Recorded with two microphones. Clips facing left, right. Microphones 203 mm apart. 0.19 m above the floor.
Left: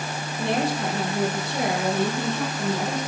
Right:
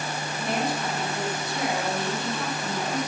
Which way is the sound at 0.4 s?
65° left (ahead or behind).